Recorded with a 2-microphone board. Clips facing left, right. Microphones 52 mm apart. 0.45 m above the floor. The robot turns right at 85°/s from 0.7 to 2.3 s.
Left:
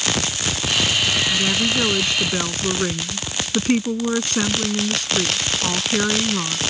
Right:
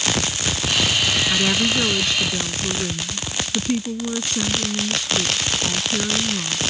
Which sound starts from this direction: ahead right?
A woman speaking, at 1.3 s.